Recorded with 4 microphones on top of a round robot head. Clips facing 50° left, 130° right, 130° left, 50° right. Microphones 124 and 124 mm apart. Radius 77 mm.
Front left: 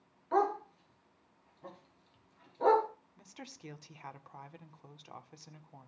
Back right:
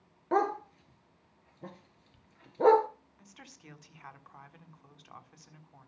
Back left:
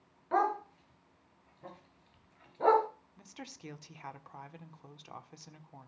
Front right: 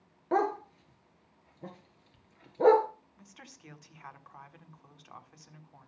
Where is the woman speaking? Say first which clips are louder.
Front left 5 dB, back left 6 dB; 90° left, 1.6 m.